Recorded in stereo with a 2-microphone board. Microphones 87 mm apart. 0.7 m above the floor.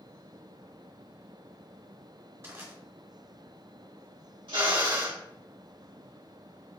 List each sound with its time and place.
2.4 s crushing: 30° right (ahead or behind), 1.1 m
4.5 s a drill: 65° right (ahead or behind), 1.4 m